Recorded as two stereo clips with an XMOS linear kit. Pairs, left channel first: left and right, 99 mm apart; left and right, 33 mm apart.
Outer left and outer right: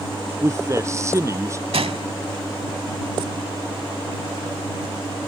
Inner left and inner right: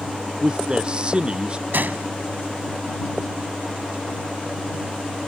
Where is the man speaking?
30° right (ahead or behind).